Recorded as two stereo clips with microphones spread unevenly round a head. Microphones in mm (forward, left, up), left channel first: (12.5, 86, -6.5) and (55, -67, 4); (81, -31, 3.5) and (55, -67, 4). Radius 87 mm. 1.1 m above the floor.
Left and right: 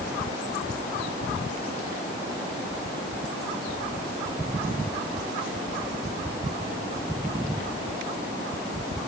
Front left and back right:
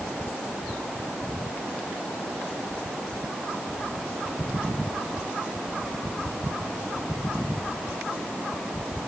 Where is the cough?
I don't hear a cough.